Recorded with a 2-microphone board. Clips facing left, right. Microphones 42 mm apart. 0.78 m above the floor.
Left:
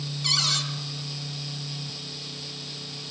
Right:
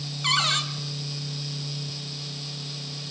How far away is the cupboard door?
About 2.5 m.